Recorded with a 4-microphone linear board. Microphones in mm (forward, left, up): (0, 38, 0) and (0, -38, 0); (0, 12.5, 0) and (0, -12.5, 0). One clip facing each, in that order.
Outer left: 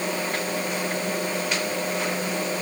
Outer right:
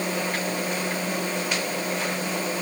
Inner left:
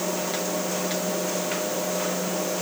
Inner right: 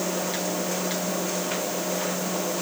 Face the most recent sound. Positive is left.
No sound to turn to.